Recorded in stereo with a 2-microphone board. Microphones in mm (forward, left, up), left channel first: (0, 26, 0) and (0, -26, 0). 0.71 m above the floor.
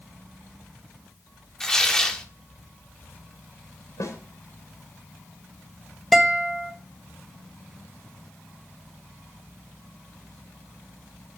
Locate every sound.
1.6 s tearing paper: 10° left (ahead or behind), 2 m
4.0 s a snare drum: 70° left (ahead or behind), 3 m
6.1 s a guitar: centre (ahead or behind), 1.1 m